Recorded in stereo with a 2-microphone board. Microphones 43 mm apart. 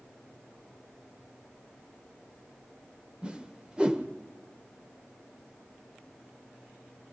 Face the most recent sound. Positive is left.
turn(degrees=-20)  # may be behind; listen again after turning